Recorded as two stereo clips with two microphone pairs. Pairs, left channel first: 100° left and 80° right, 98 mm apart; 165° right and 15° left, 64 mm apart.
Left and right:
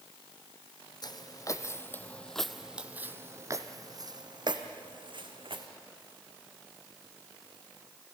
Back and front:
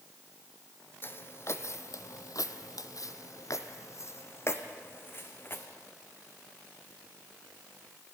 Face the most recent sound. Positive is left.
turn(degrees=-105)